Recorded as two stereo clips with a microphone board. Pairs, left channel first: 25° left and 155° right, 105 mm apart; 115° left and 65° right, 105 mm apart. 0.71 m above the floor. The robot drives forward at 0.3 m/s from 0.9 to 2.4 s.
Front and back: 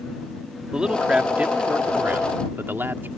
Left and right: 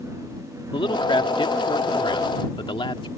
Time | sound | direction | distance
0.7 | a man speaking | 120° left | ?